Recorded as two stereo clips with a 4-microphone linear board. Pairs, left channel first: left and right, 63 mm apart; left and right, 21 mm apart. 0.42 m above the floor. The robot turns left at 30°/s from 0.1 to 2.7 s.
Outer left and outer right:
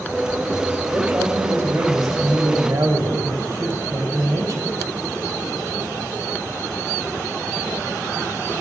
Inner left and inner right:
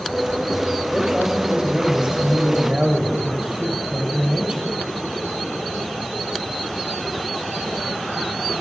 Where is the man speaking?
45° right, 2 m; by 4.7 s 95° right, 2 m.